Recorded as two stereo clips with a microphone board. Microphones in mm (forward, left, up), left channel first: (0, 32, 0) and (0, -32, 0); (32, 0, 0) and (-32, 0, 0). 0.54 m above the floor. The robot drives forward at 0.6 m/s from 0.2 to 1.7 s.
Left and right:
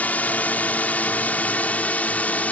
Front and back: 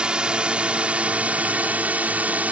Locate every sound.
0.0 s a drone: 120° left; by 2.5 s 135° left